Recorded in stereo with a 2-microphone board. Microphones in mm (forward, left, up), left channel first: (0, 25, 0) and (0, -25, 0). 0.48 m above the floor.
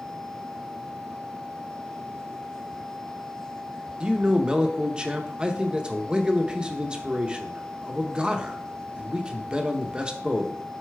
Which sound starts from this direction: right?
A man speaking, at 4.0 s.